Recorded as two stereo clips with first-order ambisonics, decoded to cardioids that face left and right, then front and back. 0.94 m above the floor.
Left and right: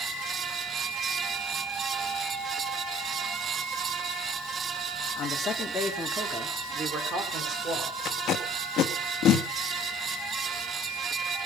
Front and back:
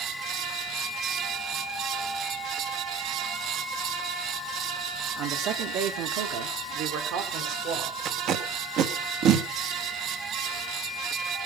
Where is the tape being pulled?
140° left, 1.8 m.